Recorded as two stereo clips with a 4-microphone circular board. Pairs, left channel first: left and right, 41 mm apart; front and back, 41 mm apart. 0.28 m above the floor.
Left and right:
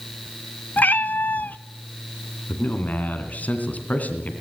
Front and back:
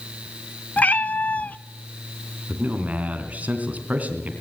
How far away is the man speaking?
About 2.5 m.